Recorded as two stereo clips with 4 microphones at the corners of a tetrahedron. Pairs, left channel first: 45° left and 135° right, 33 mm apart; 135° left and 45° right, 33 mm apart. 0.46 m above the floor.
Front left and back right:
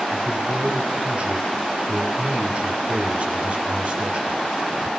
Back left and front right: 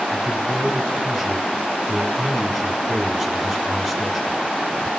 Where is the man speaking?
125° right, 2.0 m.